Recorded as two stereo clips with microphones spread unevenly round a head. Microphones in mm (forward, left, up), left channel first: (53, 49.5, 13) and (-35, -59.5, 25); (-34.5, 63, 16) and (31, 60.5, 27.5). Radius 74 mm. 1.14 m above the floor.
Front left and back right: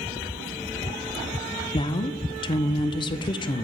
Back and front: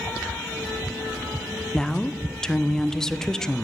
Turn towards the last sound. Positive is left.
turn(degrees=100)